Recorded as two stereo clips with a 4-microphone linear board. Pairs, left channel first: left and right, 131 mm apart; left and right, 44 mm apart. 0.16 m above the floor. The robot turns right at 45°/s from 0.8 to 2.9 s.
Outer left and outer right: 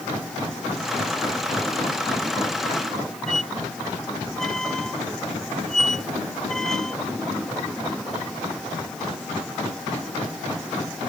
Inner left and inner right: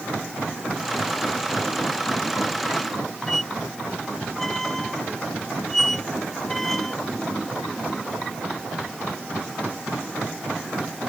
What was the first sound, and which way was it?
A squeak, 5° left (ahead or behind).